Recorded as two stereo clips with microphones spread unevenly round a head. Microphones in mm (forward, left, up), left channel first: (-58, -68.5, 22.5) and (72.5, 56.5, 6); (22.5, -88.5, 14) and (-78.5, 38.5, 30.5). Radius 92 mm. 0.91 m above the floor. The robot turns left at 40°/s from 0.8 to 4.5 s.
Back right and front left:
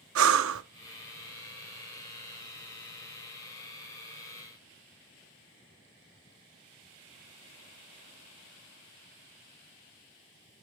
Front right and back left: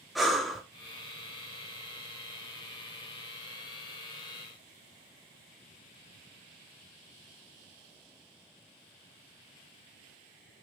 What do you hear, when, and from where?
0.1 s breathing: 40° left, 0.7 m